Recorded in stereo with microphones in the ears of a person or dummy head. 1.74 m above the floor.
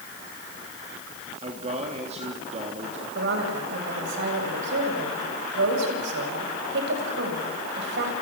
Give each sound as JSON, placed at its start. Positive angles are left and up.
{"t": 1.4, "sound": "a man speaking", "side_deg": -30, "distance_m": 3.0}
{"t": 3.1, "sound": "a woman speaking", "side_deg": -65, "distance_m": 7.5}